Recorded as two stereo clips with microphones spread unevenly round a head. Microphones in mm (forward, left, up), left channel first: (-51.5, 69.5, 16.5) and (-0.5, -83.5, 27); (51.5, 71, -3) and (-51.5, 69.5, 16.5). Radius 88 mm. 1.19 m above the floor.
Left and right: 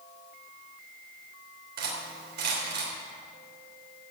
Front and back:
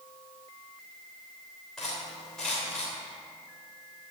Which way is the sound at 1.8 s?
90° right.